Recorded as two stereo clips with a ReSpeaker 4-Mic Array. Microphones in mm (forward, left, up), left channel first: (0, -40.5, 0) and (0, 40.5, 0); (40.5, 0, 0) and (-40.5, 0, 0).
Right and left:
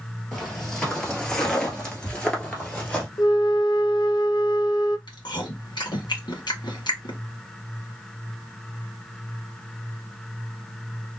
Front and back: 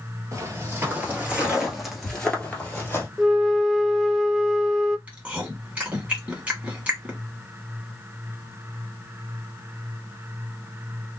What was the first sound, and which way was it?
Footsteps, 175° right.